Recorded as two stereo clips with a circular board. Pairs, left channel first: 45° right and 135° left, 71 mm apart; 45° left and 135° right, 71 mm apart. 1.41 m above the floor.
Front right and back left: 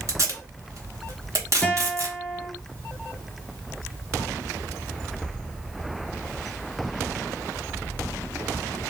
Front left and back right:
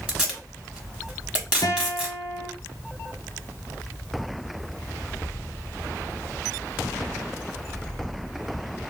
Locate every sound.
0.1 s tape being pulled: 155° left, 1.3 m
1.6 s a guitar: 30° left, 0.7 m